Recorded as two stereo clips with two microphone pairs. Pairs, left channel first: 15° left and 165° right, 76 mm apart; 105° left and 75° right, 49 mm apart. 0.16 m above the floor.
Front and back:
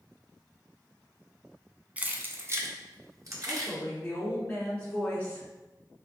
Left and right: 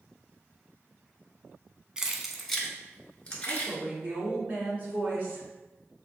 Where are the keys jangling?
125° right, 0.7 m; by 3.7 s 165° left, 1.4 m.